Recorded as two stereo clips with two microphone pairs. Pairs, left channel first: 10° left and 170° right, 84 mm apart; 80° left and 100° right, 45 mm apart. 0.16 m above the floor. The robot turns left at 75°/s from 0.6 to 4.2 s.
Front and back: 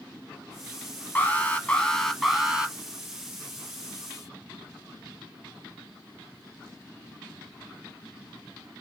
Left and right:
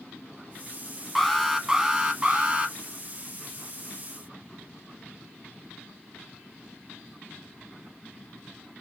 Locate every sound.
1.1 s an alarm: straight ahead, 0.9 m; by 2.8 s 120° right, 0.9 m